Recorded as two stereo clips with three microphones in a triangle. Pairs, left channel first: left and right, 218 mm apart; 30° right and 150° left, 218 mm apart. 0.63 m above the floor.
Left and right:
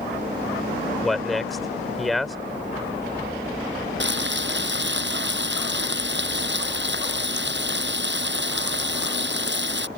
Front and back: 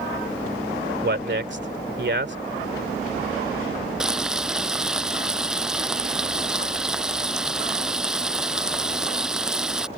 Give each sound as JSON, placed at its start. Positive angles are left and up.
{"t": 1.0, "sound": "a man speaking", "azimuth_deg": 180}
{"t": 4.0, "sound": "frying", "azimuth_deg": -125}